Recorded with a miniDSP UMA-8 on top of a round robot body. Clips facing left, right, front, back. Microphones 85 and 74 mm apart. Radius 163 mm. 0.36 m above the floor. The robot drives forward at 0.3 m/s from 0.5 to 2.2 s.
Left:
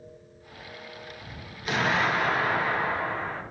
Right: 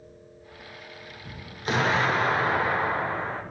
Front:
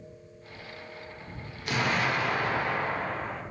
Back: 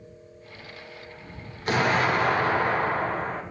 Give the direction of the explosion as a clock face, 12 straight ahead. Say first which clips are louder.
Right 2 dB, back 5 dB; 5 o'clock.